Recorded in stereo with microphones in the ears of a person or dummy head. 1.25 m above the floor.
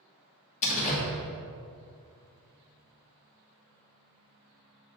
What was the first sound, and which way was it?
A door slam, 40° left (ahead or behind).